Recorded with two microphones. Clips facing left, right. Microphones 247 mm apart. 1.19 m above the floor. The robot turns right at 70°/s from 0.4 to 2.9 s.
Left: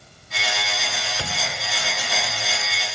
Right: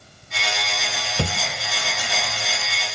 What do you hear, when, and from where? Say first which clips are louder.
1.2 s a thud: right 10 dB; 50° right (ahead or behind), 1.4 m; by 1.4 s 55° right (ahead or behind), 1.4 m